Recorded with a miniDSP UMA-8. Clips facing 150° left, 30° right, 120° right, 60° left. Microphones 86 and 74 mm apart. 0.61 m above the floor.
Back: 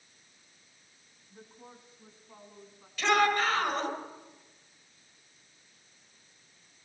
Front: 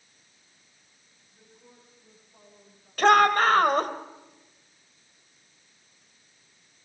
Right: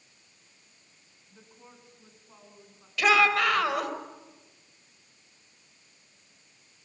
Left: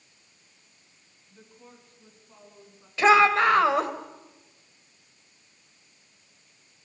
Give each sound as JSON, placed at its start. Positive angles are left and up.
{"t": 1.3, "sound": "a woman speaking", "azimuth_deg": 170, "distance_m": 7.0}
{"t": 3.0, "sound": "a shout", "azimuth_deg": 0, "distance_m": 3.5}